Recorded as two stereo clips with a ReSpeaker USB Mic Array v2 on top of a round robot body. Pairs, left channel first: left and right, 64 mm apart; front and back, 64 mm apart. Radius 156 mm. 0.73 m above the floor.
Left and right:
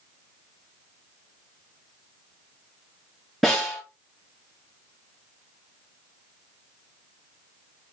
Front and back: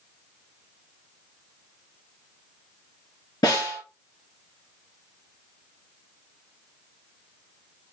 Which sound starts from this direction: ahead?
A snare drum, at 3.4 s.